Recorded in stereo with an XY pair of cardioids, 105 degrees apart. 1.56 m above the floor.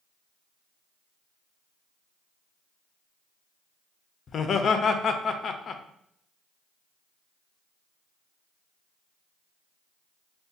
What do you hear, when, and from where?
4.3 s laughter: 50° left, 0.7 m